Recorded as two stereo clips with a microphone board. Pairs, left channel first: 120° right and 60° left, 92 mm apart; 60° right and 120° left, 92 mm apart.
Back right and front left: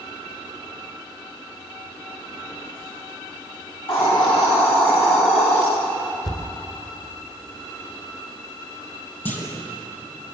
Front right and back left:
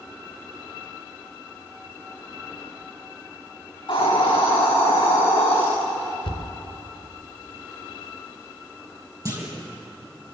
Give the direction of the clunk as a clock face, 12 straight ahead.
6 o'clock.